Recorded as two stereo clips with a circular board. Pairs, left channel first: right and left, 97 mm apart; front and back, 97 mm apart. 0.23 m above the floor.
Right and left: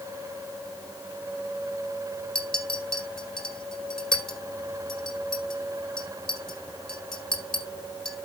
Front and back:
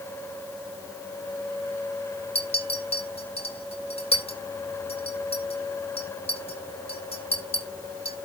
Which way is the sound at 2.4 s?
5° right.